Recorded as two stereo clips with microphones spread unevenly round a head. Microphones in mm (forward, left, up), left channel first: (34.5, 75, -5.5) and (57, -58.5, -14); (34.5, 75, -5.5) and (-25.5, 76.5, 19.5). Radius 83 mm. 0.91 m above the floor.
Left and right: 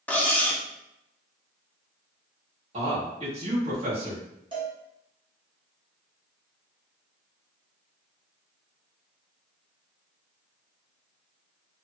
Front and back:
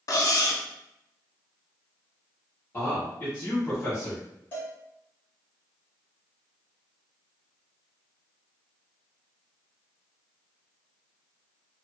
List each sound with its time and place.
0.1 s cutlery clinking: 20° left, 0.6 m
2.7 s a man speaking: 45° right, 1.4 m
4.5 s a cowbell: 35° right, 1.1 m